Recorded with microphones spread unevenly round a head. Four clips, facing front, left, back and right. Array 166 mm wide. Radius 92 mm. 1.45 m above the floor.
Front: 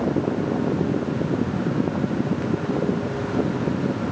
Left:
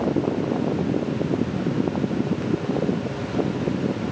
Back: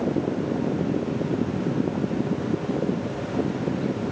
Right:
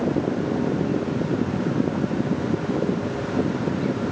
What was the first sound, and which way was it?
Only background noise.